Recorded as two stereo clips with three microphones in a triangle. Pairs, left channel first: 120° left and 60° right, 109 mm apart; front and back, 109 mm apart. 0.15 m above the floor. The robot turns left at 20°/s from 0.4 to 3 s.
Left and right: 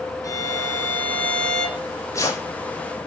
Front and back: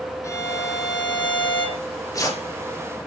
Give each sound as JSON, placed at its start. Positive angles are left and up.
{"t": 0.2, "sound": "a violin", "azimuth_deg": 60, "distance_m": 7.0}
{"t": 1.8, "sound": "tearing paper", "azimuth_deg": 65, "distance_m": 6.5}